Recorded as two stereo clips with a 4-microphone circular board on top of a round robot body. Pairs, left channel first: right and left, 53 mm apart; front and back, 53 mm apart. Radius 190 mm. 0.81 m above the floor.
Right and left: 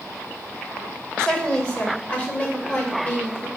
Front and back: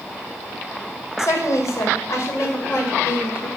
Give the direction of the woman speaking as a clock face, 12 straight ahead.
1 o'clock.